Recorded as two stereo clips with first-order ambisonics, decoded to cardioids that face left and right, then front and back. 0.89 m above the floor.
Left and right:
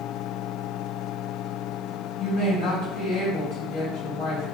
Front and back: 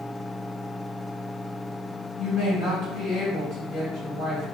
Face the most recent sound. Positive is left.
turn(degrees=40)